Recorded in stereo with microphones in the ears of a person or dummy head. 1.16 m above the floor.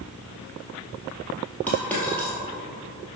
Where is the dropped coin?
10° left (ahead or behind), 2 m.